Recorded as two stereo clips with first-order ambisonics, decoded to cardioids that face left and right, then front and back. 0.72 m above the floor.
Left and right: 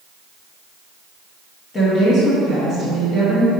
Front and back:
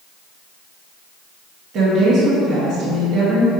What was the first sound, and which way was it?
A woman speaking, 135° left.